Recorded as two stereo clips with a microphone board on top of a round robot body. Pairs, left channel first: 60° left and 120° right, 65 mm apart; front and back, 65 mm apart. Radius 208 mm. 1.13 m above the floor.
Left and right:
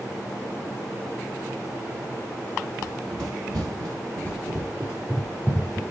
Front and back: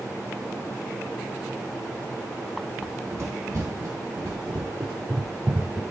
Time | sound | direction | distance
2.8 | running footsteps | 140° right | 2 m